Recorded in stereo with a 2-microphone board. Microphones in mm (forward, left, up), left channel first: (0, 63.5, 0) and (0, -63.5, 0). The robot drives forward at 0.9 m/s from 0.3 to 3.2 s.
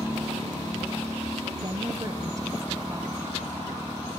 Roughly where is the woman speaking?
Right.